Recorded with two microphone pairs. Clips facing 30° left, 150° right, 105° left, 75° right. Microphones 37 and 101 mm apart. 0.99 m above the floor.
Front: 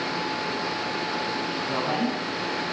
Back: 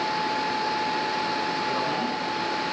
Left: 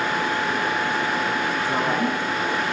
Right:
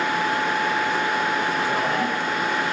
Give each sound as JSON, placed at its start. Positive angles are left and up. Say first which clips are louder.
{"t": 1.7, "sound": "a woman speaking", "louder": "even, even", "azimuth_deg": 20, "distance_m": 8.5}